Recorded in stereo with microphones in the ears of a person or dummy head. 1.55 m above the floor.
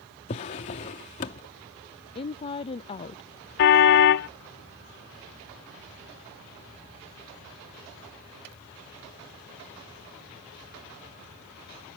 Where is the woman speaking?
30° left (ahead or behind).